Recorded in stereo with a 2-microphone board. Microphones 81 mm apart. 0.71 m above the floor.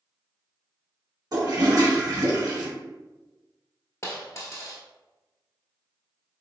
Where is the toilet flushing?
55° right (ahead or behind), 1.4 m.